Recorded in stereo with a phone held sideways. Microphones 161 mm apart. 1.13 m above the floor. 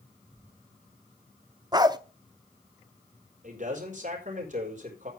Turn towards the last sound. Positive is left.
turn(degrees=-50)  # may be behind; listen again after turning